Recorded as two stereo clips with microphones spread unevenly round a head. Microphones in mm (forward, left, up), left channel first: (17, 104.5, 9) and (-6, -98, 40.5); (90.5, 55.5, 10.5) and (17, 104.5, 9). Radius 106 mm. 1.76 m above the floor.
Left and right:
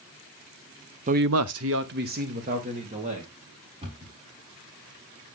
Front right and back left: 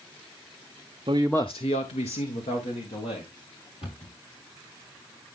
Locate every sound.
1.1 s a man speaking: 155° right, 0.6 m; by 3.3 s 35° right, 2.5 m
3.8 s a cupboard door: 35° right, 5 m